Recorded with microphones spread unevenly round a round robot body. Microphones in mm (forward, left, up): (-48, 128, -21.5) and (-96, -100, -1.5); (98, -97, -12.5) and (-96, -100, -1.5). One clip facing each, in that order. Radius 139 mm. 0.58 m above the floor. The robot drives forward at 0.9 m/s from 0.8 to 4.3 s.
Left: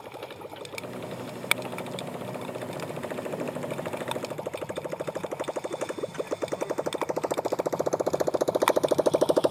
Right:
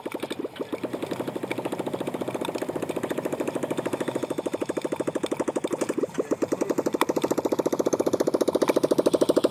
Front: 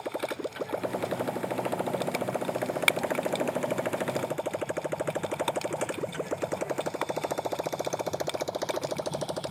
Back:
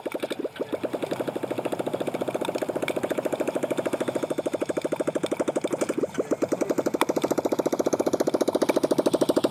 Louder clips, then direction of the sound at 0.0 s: Right 10 dB, back 4 dB; 125° right.